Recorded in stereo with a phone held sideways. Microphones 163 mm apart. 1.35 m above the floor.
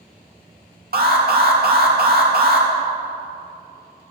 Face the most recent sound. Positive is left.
turn(degrees=-70)  # may be behind; listen again after turning